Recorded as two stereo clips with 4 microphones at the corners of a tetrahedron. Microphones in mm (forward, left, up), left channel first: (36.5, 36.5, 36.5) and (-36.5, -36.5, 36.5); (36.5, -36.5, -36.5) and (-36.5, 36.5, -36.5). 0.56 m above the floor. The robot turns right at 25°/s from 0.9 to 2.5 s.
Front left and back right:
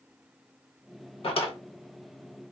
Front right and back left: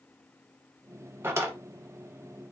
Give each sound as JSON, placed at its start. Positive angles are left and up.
{"t": 1.2, "sound": "a drawer", "azimuth_deg": 65, "distance_m": 0.7}